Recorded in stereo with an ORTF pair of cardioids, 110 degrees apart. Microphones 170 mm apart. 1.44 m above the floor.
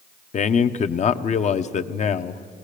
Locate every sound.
0.3 s a man speaking: 40° left, 0.9 m